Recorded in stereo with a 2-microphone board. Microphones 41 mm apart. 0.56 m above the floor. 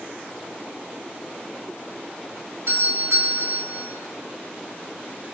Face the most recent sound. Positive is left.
turn(degrees=-65)  # may be behind; listen again after turning